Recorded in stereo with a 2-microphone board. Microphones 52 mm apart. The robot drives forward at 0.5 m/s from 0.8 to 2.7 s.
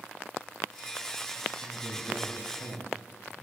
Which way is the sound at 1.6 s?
75° right (ahead or behind).